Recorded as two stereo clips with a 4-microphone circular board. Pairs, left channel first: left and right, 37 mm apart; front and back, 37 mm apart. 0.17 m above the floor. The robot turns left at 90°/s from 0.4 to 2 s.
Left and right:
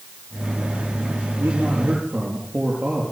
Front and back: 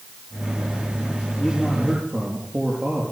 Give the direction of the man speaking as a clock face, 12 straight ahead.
3 o'clock.